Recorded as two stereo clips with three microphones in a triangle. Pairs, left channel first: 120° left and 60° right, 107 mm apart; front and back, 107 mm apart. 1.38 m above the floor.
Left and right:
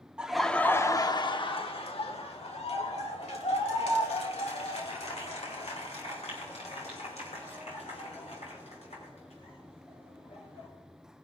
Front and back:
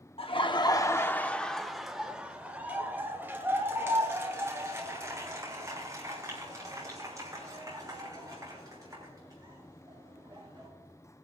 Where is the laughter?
20° left, 0.8 m; by 10.7 s 125° left, 7.5 m.